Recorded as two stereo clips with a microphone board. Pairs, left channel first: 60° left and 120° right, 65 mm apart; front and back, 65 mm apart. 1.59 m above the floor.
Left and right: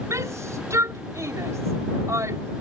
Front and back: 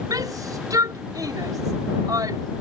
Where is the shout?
160° right.